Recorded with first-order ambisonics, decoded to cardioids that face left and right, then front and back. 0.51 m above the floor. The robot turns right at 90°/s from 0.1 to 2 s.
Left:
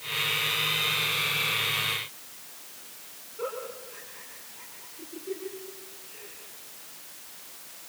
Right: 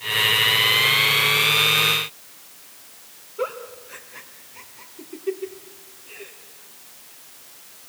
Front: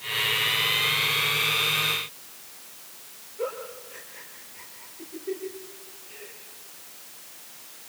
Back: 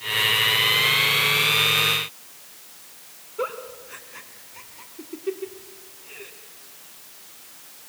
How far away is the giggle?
About 2.5 m.